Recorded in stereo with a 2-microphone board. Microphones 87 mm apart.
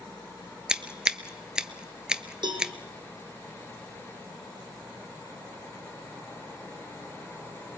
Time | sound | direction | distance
0.7 | scissors | 10° right (ahead or behind) | 0.8 m
2.4 | a cowbell | 60° right (ahead or behind) | 3 m